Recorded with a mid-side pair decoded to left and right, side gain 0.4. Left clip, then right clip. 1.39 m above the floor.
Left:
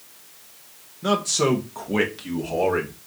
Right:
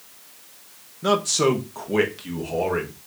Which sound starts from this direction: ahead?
A man speaking, at 1.0 s.